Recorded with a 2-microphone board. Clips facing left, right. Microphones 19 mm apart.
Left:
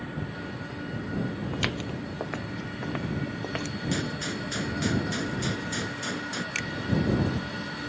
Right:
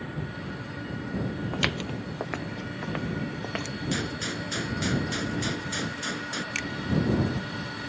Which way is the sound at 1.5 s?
15° right (ahead or behind).